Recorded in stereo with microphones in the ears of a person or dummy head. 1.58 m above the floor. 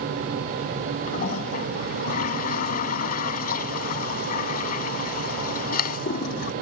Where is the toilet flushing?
50° left (ahead or behind).